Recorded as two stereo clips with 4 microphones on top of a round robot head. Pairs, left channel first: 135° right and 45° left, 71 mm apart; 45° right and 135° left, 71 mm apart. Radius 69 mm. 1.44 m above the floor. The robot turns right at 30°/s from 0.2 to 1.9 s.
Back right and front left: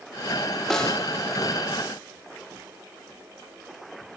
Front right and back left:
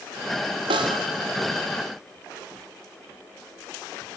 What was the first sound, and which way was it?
A snare drum, 140° left.